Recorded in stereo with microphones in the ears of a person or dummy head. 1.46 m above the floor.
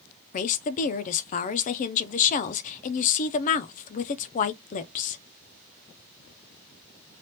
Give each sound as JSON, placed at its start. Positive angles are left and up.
{"t": 0.3, "sound": "a woman speaking", "side_deg": 40, "distance_m": 0.6}